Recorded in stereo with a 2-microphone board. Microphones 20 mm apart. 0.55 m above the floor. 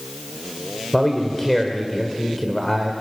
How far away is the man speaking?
About 1.9 m.